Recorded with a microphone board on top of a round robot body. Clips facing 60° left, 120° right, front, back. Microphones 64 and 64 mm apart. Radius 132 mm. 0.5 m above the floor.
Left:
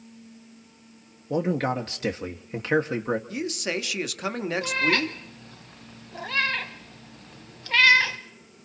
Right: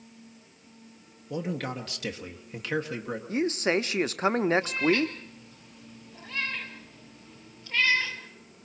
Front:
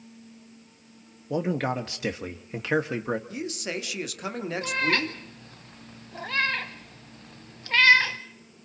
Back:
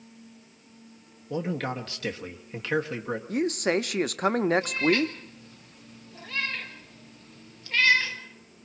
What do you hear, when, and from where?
1.3 s a man speaking: 55° left, 1.4 m
3.3 s a man speaking: 165° right, 1.1 m
4.6 s a cat meowing: 45° left, 0.7 m